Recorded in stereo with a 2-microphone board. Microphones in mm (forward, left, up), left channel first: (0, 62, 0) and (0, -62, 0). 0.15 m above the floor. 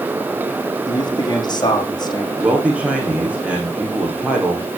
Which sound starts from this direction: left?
A man speaking, at 0.9 s.